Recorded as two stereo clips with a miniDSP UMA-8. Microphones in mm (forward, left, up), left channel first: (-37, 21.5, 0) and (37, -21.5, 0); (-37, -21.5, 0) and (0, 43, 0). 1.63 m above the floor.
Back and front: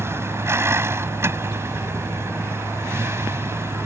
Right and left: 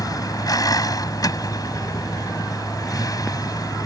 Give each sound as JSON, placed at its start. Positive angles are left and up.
{"t": 0.0, "sound": "a vehicle", "azimuth_deg": -90}